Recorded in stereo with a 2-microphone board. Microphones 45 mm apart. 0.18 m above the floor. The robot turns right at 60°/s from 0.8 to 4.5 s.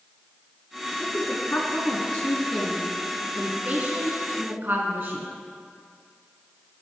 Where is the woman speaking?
45° left (ahead or behind), 1.6 m; by 5.3 s 50° right (ahead or behind), 1.6 m.